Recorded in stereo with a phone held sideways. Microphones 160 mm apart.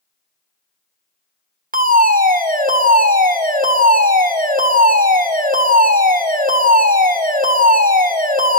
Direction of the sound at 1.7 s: 60° right (ahead or behind).